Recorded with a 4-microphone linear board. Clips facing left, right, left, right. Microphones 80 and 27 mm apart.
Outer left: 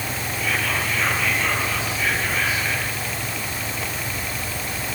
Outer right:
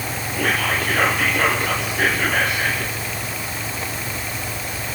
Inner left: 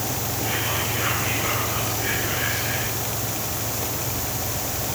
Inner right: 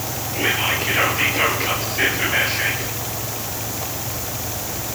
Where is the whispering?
60° right (ahead or behind), 3.5 m.